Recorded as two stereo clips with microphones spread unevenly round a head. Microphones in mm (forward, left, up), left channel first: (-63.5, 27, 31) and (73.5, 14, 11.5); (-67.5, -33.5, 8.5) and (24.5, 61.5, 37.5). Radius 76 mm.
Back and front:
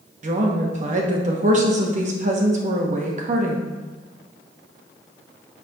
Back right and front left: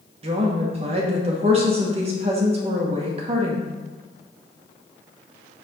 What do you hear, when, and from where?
0.2 s a woman speaking: 5° right, 1.2 m